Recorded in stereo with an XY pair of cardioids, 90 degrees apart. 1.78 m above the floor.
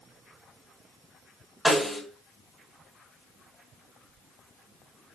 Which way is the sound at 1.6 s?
Straight ahead.